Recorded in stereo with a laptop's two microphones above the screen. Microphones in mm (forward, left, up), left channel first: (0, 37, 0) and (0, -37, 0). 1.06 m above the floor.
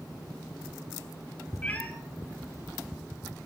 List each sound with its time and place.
1.6 s a cat meowing: 20° left (ahead or behind), 1.1 m